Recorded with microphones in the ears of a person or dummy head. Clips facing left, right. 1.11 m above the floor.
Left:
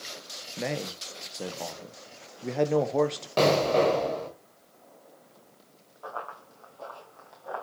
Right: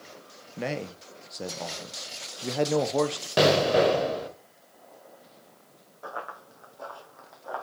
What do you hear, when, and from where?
0.6 s a man speaking: 5° left (ahead or behind), 0.5 m
3.4 s an explosion: 15° right (ahead or behind), 1.6 m
6.0 s running footsteps: 20° right (ahead or behind), 3 m; by 7.6 s 5° left (ahead or behind), 3 m